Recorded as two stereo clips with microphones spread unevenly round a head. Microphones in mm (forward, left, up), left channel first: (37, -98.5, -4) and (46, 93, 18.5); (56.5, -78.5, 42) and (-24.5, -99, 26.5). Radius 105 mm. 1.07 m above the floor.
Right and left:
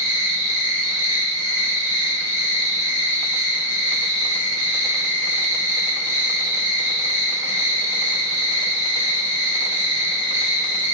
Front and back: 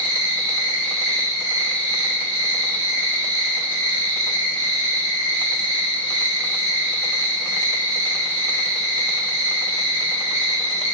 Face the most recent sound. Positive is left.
turn(degrees=165)